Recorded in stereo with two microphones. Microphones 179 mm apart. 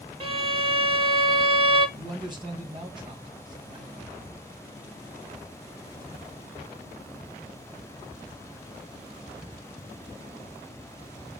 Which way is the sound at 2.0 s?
25° right (ahead or behind).